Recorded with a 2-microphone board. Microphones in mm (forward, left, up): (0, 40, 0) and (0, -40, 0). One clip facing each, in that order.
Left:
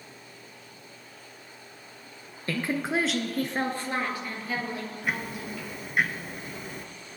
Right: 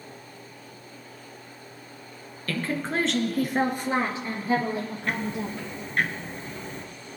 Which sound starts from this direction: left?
A woman speaking, at 2.5 s.